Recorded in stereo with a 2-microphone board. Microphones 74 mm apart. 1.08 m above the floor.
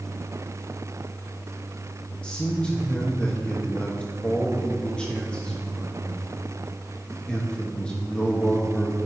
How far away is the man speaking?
About 1.3 m.